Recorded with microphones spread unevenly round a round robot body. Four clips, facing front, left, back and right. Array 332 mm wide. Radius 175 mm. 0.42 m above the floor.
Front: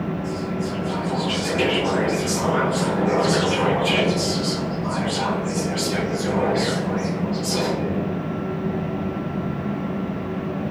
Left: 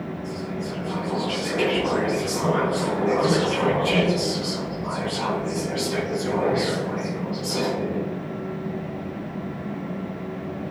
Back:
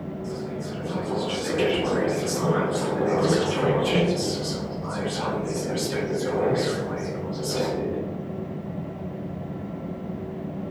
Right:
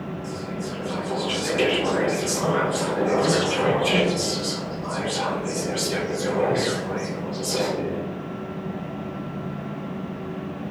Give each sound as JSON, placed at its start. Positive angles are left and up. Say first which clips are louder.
{"t": 0.2, "sound": "whispering", "louder": "left 1 dB, front 5 dB", "azimuth_deg": -115, "distance_m": 1.2}